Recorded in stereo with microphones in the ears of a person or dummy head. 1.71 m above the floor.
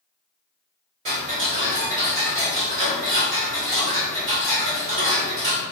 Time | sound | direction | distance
1.1 | ticking | 40° right (ahead or behind) | 1.4 m